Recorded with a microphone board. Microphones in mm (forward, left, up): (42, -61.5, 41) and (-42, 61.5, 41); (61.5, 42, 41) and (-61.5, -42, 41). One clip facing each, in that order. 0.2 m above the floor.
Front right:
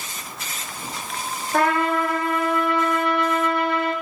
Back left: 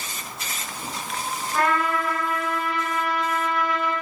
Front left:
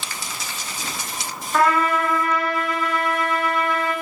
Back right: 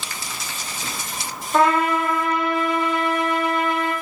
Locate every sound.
1.5 s a trumpet: 80° right, 7.5 m